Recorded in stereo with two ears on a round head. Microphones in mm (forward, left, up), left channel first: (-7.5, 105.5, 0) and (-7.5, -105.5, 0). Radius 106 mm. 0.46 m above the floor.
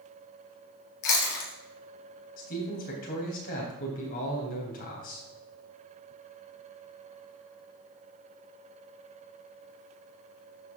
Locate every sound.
1.0 s chewing: 50° left (ahead or behind), 3 m
2.4 s a man speaking: 40° left (ahead or behind), 3.5 m